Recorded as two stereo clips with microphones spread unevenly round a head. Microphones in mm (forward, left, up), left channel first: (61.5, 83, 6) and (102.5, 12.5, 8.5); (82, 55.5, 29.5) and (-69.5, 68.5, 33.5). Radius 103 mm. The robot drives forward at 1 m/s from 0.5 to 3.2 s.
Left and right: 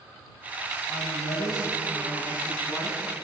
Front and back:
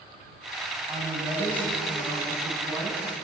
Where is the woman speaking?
95° left, 9 m; by 3.0 s 105° left, 9.5 m.